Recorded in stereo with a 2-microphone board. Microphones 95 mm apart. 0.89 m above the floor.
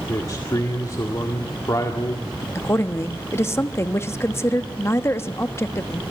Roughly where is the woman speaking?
Left.